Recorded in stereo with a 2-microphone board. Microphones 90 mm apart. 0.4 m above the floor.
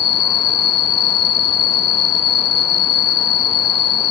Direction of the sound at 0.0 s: 70° right (ahead or behind).